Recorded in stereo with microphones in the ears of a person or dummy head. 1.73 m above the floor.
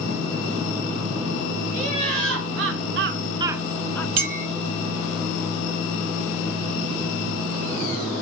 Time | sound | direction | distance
1.7 | laughter | 75° right (ahead or behind) | 2 m
4.2 | a clink | 45° right (ahead or behind) | 1.7 m